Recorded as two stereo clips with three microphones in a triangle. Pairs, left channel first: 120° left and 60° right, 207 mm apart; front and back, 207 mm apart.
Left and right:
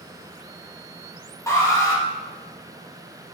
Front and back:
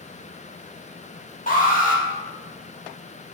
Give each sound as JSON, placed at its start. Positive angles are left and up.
{"t": 1.5, "sound": "an alarm", "azimuth_deg": 45, "distance_m": 2.5}